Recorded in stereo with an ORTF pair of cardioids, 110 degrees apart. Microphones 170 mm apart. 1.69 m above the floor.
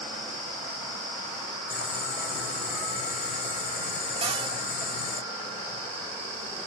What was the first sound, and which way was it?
Boiling, 55° left.